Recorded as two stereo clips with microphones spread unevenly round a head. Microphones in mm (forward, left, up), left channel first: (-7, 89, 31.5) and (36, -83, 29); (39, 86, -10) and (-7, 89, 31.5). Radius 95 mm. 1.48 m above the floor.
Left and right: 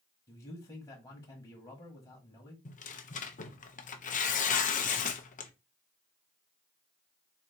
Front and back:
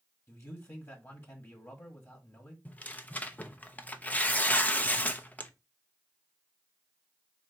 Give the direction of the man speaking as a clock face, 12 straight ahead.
11 o'clock.